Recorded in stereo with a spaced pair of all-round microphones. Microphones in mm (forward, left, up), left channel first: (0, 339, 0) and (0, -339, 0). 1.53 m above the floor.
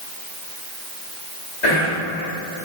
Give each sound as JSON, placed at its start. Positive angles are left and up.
{"t": 1.6, "sound": "whispering", "side_deg": 85, "distance_m": 1.3}